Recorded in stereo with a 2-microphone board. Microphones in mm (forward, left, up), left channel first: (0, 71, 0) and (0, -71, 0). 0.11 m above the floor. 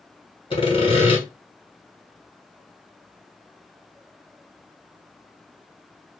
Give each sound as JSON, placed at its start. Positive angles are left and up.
{"t": 0.5, "sound": "sawing", "side_deg": 35, "distance_m": 1.3}